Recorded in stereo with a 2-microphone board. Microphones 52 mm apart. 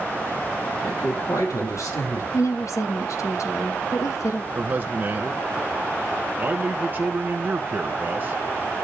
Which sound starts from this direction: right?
A man speaking, at 4.5 s.